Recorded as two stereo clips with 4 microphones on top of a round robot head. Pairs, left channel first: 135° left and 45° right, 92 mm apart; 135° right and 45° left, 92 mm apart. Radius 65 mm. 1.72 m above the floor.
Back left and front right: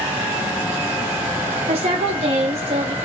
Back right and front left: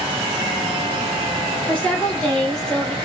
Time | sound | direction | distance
1.7 | a woman speaking | 60° right | 1.9 m